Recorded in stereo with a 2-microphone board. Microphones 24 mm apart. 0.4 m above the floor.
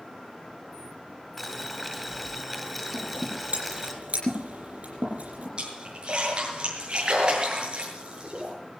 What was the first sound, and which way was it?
Boiling, centre (ahead or behind).